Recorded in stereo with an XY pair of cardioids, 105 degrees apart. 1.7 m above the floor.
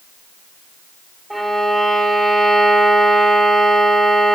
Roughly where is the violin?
Ahead.